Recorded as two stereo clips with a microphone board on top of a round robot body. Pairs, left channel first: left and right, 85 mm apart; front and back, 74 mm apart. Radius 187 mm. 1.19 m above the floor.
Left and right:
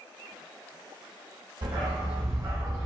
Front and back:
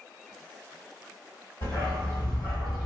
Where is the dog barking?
50° right, 1.9 m; by 2.9 s 40° right, 1.3 m.